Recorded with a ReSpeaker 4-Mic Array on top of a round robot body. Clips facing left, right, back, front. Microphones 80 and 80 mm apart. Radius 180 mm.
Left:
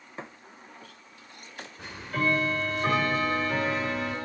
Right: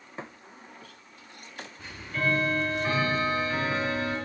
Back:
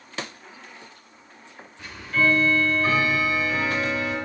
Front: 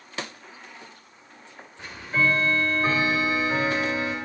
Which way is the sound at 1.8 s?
65° left.